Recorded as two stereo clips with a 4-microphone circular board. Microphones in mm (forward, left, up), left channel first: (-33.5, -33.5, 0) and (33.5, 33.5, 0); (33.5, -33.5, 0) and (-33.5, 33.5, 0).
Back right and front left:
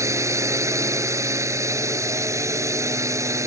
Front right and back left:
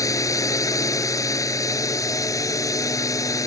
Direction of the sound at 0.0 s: 5° right.